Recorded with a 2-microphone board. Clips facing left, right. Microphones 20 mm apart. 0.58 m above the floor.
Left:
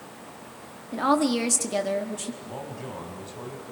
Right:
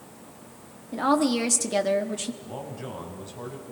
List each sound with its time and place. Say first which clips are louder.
0.9 s a woman speaking: even; 10° left (ahead or behind), 1.3 m; by 2.3 s 25° right (ahead or behind), 1.2 m
2.4 s a man speaking: even; centre (ahead or behind), 4 m